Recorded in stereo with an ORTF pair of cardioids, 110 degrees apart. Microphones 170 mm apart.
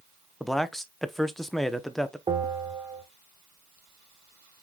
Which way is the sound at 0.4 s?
Straight ahead.